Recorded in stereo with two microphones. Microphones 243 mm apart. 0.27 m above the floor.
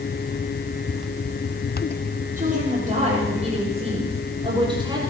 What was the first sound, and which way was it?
A woman speaking, 35° right (ahead or behind).